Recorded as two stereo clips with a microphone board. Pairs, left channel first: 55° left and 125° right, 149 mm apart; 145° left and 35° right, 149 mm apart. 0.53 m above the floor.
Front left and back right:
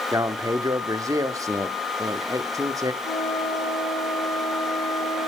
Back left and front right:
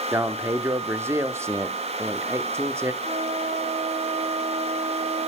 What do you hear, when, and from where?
0.1 s a man speaking: 85° right, 0.8 m
3.0 s a flute: 40° left, 6.5 m